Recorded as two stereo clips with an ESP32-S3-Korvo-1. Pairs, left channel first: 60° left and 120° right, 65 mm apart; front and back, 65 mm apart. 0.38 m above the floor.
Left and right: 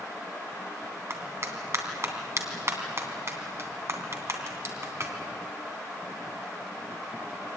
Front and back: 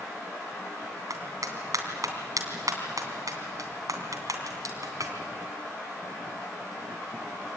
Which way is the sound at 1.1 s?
160° right.